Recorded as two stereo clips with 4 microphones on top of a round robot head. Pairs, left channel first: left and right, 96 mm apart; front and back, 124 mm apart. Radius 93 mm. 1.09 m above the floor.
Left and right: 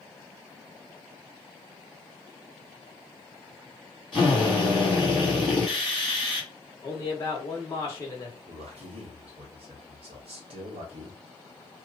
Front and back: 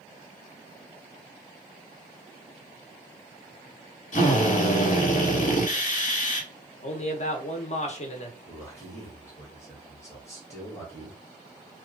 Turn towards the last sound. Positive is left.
turn(degrees=-75)